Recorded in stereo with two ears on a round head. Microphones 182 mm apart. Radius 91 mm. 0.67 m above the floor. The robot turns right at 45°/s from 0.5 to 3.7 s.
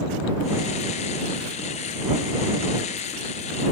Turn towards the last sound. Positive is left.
No sound to turn to.